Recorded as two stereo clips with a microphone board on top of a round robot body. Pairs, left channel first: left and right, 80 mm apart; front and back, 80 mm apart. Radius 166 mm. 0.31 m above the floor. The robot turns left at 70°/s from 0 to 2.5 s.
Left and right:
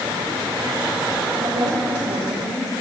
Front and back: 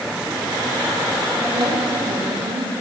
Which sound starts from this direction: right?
A woman speaking, at 1.4 s.